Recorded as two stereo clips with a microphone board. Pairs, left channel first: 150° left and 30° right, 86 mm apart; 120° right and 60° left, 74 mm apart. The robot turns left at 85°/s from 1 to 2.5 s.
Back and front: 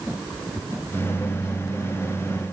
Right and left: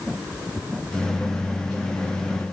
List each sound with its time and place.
Only background noise.